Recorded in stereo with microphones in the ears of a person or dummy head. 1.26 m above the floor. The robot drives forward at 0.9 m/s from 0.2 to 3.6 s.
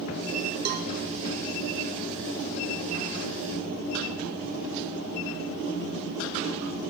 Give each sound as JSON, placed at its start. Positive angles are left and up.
{"t": 0.7, "sound": "a cowbell", "side_deg": -50, "distance_m": 0.7}